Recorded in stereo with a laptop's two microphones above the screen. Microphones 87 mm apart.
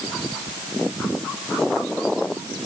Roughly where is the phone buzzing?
I don't hear a phone buzzing.